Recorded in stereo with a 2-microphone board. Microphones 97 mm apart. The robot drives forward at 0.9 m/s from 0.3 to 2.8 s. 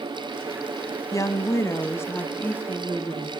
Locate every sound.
1.1 s a woman speaking: 35° left (ahead or behind), 1.1 m; by 3.3 s 20° left (ahead or behind), 2 m